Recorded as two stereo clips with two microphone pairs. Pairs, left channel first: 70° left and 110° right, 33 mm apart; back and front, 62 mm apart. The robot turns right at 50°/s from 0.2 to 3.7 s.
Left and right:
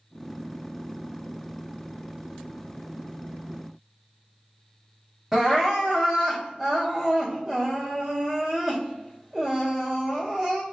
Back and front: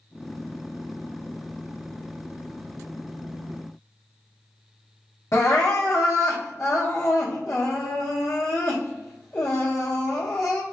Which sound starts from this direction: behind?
Crying, at 5.3 s.